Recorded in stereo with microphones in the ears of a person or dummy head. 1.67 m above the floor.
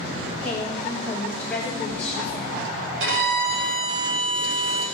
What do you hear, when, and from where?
0.4 s a woman speaking: 5° left (ahead or behind), 6.5 m
3.0 s a violin: 80° right, 6 m